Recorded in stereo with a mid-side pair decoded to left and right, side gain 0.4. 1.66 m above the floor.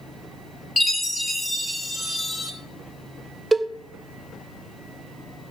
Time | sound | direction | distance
0.8 | a chime | 25° left | 3.5 m
3.5 | a cowbell | 20° right | 1.2 m